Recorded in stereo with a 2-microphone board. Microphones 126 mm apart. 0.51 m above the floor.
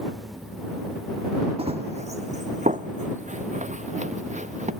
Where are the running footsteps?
50° right (ahead or behind); by 4.7 s 70° right (ahead or behind).